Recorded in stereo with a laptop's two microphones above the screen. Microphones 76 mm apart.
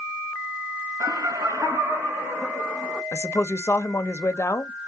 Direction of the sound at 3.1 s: 40° left (ahead or behind).